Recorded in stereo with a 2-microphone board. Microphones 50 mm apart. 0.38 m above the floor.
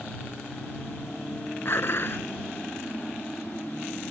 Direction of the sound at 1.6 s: 50° left (ahead or behind).